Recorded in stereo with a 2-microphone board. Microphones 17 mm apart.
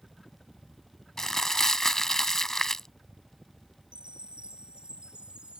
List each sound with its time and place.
0.0 s a helicopter: 20° left (ahead or behind); by 5.6 s 15° right (ahead or behind)
1.2 s crumpling: 25° left (ahead or behind)
3.9 s a chime: 75° right (ahead or behind)